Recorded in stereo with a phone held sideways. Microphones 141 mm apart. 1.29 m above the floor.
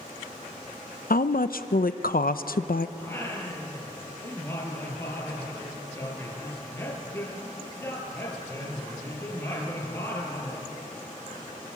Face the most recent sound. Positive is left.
turn(degrees=15)  # may be behind; listen again after turning